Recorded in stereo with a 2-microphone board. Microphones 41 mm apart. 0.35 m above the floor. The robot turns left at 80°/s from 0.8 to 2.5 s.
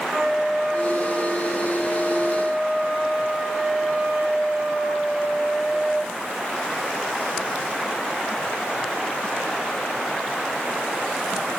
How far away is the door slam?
I don't hear a door slam.